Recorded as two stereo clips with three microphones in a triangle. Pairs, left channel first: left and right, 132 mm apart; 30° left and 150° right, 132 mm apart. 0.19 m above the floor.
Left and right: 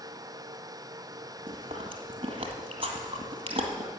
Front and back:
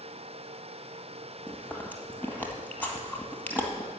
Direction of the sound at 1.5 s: 45° right.